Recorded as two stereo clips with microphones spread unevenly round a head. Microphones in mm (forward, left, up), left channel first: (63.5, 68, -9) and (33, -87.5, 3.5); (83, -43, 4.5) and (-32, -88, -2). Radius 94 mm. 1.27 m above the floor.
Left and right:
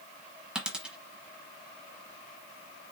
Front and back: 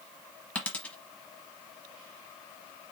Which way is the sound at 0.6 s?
35° right.